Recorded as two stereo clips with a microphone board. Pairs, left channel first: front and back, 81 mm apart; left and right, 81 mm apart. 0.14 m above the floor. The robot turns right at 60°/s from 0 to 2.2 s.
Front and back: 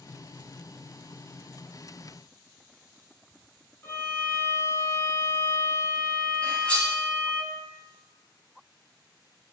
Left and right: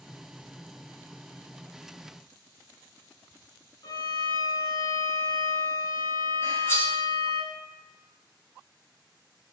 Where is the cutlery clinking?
60° left, 1.0 m.